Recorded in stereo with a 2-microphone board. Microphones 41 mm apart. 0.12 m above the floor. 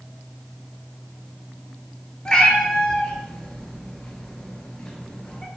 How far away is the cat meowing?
About 0.5 m.